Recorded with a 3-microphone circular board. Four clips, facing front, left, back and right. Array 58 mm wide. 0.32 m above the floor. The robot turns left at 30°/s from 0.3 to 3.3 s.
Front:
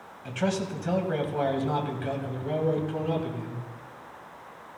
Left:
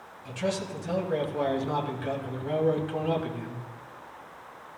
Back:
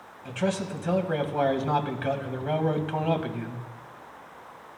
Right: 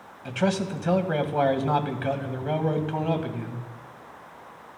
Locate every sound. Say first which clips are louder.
0.2 s a man speaking: right 5 dB, even; 75° right, 1.6 m; by 3.6 s 165° right, 1.6 m